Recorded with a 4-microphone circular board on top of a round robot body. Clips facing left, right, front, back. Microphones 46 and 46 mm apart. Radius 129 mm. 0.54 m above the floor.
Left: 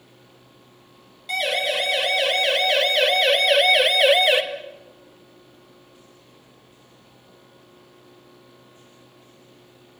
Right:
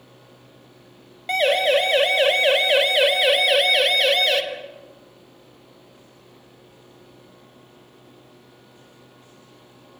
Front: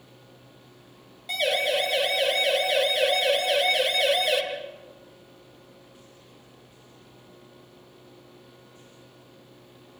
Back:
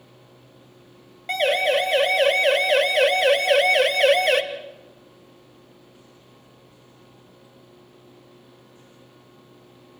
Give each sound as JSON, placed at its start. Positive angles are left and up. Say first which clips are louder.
{"t": 1.3, "sound": "a siren", "louder": "right 5 dB, back 5 dB", "azimuth_deg": -140, "distance_m": 5.0}